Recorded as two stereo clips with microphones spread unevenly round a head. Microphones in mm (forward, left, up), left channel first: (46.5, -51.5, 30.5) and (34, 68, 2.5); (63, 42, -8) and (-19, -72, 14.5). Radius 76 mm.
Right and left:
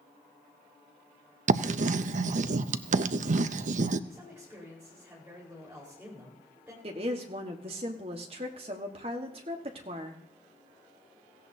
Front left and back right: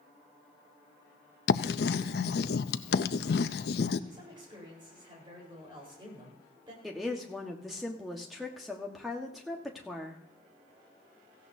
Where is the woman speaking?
145° left, 1.4 m.